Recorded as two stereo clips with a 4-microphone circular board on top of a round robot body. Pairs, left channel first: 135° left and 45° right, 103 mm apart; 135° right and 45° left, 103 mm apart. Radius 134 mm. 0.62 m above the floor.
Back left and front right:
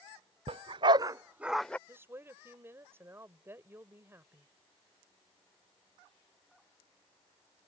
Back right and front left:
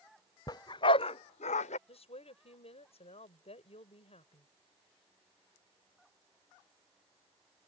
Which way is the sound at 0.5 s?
80° right.